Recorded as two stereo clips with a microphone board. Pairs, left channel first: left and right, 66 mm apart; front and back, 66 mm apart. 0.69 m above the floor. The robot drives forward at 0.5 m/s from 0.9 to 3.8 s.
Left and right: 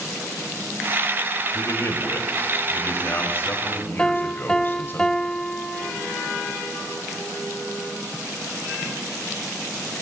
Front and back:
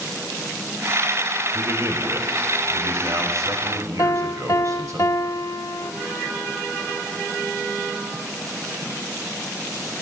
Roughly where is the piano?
Ahead.